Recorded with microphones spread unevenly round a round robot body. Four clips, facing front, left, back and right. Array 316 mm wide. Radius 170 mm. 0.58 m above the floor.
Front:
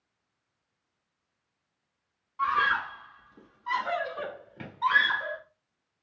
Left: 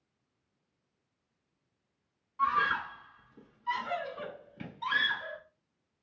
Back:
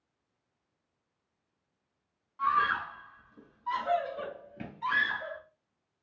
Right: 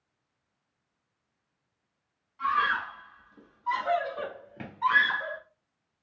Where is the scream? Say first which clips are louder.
Right 2 dB, front 1 dB; 80° left, 1.4 m; by 5.4 s 80° right, 2 m.